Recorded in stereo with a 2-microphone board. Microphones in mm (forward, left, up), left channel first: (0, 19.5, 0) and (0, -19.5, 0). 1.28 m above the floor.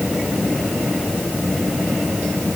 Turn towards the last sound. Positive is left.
No sound to turn to.